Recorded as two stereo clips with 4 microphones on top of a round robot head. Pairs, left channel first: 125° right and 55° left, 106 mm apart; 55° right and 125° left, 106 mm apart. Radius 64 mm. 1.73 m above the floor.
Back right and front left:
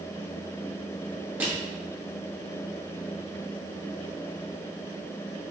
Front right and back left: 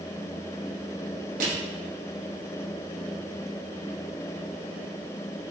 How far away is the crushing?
About 1.1 m.